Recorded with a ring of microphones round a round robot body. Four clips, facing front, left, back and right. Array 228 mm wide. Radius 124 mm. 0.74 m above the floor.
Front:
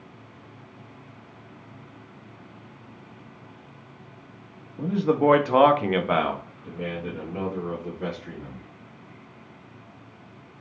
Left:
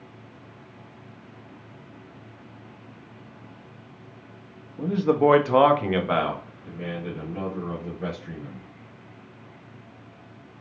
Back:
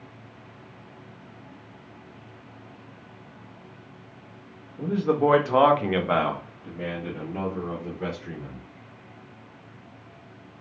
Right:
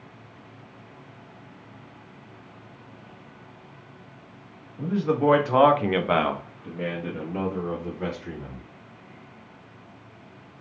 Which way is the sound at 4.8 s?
65° left.